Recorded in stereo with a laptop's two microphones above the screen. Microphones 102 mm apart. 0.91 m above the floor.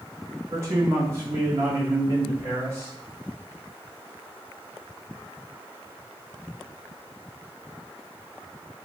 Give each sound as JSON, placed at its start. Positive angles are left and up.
{"t": 0.5, "sound": "a man speaking", "side_deg": -30, "distance_m": 1.8}